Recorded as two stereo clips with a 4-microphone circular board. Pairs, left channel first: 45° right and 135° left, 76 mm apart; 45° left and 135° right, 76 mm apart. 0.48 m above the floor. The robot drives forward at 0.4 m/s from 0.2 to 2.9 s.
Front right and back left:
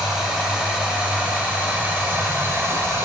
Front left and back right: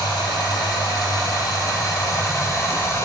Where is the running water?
55° left, 2 m; by 3.1 s 85° left, 1.8 m.